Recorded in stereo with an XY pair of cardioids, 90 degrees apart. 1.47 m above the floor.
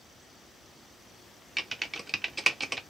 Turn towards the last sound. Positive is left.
turn(degrees=-20)